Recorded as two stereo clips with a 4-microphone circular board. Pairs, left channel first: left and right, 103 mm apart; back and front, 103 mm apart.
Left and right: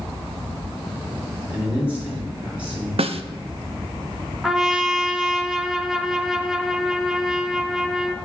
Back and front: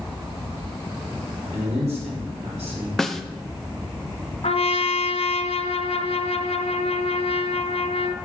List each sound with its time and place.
1.5 s a man speaking: 15° right, 3.5 m
3.0 s a snare drum: 95° right, 0.5 m
4.4 s a trumpet: 175° right, 0.7 m